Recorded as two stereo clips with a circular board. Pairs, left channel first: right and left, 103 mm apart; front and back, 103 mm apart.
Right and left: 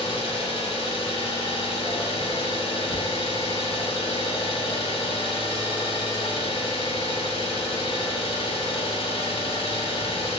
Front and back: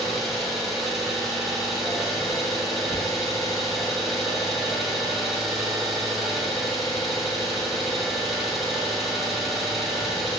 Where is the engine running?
90° right, 0.7 m.